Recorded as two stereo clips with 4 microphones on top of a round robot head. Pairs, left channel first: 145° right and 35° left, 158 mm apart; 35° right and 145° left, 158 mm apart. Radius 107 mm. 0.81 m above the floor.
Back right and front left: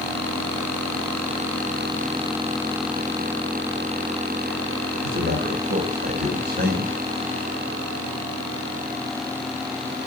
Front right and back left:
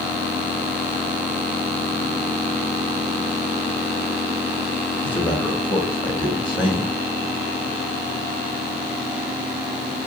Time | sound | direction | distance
5.0 | a man speaking | 30° left | 1.7 m